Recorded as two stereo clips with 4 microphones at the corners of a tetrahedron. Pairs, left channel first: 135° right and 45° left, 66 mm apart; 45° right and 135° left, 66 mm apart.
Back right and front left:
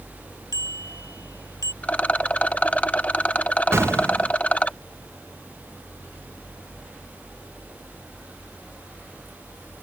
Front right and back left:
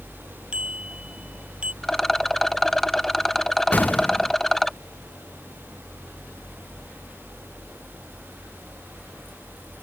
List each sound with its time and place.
0.5 s a bicycle bell: 150° right
1.8 s a rattle: 125° right
3.7 s an explosion: 10° left